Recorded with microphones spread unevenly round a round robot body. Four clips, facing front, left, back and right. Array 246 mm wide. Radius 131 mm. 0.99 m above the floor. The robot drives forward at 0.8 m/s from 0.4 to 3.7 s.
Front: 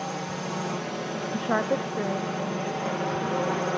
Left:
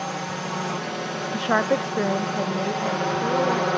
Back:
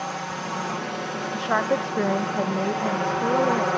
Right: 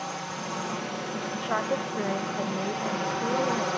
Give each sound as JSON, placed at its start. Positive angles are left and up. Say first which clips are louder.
{"t": 0.0, "sound": "a drone", "louder": "left 5 dB, back 2 dB", "azimuth_deg": 80}
{"t": 1.3, "sound": "a woman speaking", "louder": "left 7 dB, back 3 dB", "azimuth_deg": 80}